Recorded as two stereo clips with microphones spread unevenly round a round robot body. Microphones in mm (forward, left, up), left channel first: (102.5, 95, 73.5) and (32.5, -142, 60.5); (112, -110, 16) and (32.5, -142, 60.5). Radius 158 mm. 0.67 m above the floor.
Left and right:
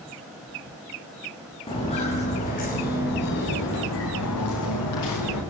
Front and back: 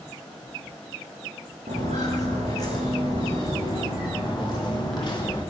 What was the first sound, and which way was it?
Footsteps, 145° left.